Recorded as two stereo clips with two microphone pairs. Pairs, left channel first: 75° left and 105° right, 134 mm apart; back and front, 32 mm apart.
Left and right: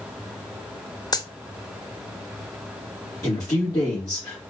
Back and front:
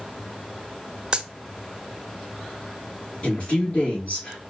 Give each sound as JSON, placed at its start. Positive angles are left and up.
{"t": 1.1, "sound": "a dropped coin", "azimuth_deg": 45, "distance_m": 0.6}
{"t": 3.2, "sound": "a man speaking", "azimuth_deg": 135, "distance_m": 3.5}